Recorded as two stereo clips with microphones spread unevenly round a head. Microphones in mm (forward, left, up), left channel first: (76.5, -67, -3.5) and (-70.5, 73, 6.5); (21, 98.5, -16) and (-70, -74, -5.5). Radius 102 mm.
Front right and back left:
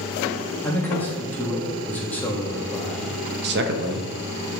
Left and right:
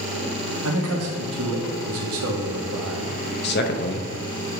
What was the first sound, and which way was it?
A man speaking, 125° right.